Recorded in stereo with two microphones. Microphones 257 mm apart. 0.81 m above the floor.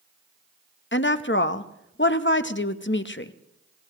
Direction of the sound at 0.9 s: 45° left (ahead or behind).